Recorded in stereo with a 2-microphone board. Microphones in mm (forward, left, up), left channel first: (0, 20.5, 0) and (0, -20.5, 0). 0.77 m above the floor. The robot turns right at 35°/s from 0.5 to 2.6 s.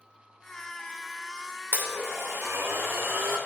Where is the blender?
120° right, 2.5 m; by 3.4 s 90° right, 2.5 m.